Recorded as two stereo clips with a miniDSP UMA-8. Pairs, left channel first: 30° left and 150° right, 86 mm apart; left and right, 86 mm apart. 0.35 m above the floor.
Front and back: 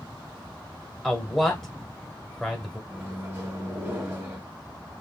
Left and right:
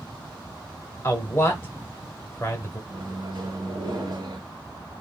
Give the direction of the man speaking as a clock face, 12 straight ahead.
8 o'clock.